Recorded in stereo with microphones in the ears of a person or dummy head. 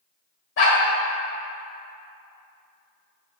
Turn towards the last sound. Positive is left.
turn(degrees=60)  # may be behind; listen again after turning